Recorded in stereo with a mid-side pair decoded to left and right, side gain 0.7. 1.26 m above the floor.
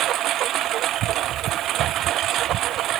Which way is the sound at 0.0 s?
50° right.